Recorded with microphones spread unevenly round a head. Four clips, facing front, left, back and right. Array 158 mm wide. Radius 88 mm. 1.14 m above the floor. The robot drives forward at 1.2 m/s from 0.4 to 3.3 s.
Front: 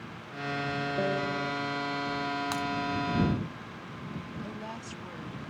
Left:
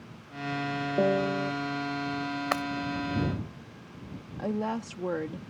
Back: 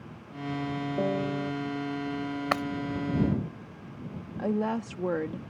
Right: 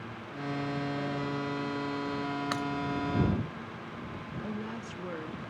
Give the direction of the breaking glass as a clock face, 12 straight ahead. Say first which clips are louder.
Left 7 dB, back 4 dB; 7 o'clock.